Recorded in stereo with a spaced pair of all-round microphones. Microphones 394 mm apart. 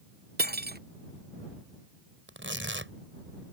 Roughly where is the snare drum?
No snare drum in this recording.